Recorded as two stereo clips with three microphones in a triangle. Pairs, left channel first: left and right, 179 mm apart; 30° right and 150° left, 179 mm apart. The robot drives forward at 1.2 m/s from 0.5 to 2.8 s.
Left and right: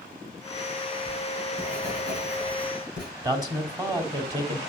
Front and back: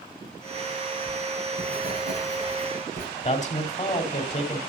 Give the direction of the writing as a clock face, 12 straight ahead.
6 o'clock.